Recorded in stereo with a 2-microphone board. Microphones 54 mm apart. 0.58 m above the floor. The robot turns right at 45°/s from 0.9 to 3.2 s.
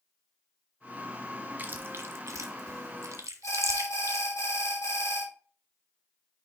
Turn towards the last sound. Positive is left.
turn(degrees=60)  # may be behind; listen again after turning